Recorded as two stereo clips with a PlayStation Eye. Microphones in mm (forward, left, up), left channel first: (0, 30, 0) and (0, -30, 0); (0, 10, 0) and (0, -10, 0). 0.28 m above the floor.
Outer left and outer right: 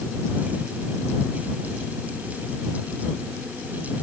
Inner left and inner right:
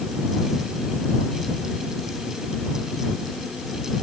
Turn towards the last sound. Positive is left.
No sound to turn to.